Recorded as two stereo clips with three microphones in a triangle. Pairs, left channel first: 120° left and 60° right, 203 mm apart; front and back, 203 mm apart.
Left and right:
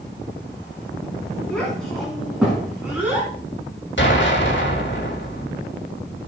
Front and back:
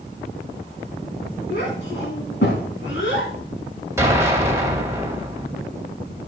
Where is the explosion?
105° left, 2.5 m.